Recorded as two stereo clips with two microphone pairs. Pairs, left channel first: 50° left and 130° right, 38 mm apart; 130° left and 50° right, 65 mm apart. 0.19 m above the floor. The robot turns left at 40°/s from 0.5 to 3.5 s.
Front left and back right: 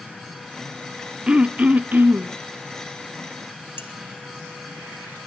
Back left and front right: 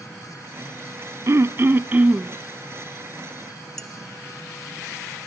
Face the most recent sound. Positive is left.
turn(degrees=50)